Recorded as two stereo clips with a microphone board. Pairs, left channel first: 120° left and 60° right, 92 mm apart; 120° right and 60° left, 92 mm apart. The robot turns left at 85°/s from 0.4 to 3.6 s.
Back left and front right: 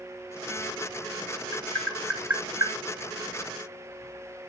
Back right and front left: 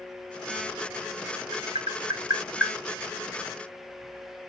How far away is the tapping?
About 1.6 m.